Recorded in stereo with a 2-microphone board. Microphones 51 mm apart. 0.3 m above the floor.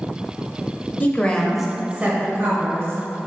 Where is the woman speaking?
30° left (ahead or behind), 1.0 m; by 3.3 s 60° right (ahead or behind), 2.0 m.